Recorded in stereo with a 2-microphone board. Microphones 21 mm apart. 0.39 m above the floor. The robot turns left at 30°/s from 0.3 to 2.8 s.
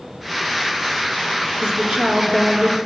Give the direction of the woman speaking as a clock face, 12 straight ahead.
3 o'clock.